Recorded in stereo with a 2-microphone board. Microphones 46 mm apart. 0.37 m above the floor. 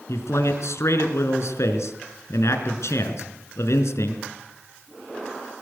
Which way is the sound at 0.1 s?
80° left.